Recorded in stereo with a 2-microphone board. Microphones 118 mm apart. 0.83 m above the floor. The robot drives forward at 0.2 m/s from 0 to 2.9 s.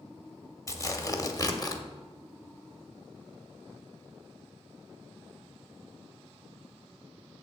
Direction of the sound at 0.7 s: 25° left (ahead or behind).